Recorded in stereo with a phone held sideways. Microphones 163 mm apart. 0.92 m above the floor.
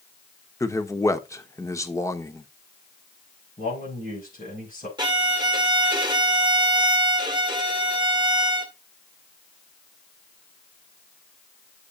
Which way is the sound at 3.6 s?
50° left (ahead or behind).